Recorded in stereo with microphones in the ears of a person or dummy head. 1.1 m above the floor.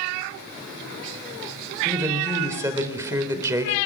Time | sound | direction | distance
1.9 | a woman speaking | 15° right (ahead or behind) | 4 m